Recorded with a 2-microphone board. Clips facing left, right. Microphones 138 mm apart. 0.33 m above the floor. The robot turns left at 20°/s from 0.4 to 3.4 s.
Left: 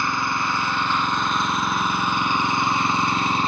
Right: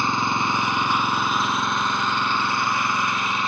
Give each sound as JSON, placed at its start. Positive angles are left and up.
{"t": 0.0, "sound": "an engine running", "azimuth_deg": -155, "distance_m": 0.9}